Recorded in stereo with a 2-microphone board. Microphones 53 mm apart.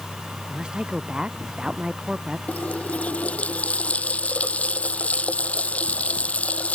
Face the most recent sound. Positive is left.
turn(degrees=25)  # may be behind; listen again after turning